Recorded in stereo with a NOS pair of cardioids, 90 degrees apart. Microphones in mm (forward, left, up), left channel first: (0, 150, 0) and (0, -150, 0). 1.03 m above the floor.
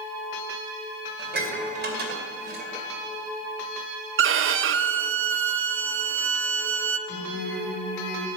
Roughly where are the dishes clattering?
Ahead right.